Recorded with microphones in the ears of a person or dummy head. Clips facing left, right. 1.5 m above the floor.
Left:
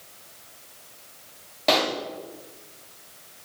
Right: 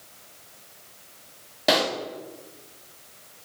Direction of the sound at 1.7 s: 10° right (ahead or behind).